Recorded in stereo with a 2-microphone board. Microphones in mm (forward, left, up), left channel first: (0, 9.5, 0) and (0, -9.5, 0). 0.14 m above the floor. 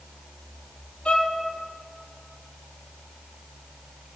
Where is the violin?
75° left (ahead or behind), 0.6 m.